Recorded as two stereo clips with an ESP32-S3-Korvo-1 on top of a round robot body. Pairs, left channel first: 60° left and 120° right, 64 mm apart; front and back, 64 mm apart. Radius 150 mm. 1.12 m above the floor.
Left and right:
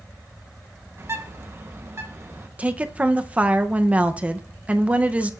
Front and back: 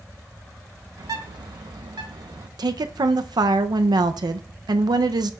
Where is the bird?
170° right, 1.0 m.